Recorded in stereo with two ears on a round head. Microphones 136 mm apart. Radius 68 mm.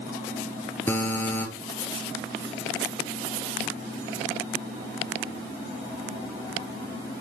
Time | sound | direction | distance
0.9 | a buzzer | 15° left (ahead or behind) | 1.5 m